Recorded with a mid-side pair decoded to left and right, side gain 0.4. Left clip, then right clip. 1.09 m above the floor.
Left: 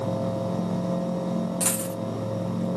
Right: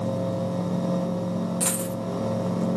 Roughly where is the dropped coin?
Ahead.